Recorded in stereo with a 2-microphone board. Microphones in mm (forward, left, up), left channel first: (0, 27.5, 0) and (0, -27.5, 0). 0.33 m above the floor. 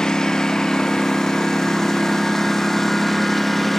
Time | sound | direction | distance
0.0 | a lawn mower | 10° left (ahead or behind) | ?